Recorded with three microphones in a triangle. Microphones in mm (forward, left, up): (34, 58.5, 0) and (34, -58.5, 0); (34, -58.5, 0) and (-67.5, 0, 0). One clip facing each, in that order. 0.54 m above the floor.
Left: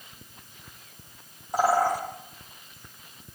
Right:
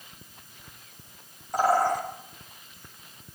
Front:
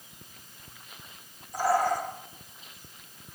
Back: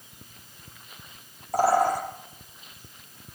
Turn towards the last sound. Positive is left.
turn(degrees=170)